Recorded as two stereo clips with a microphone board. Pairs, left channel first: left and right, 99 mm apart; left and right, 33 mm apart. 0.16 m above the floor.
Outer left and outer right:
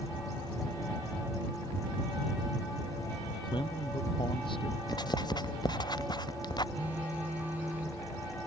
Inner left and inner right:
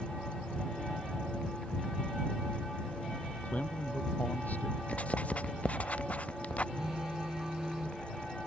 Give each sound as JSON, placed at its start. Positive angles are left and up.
{"t": 3.4, "sound": "a man speaking", "side_deg": 50}
{"t": 4.9, "sound": "writing", "side_deg": 45}
{"t": 6.8, "sound": "a phone buzzing", "side_deg": -15}